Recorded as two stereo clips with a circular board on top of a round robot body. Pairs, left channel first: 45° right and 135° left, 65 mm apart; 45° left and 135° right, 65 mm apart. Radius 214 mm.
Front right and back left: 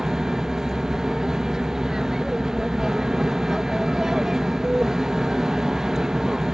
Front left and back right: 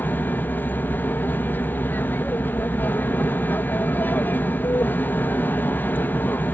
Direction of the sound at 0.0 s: 60° left.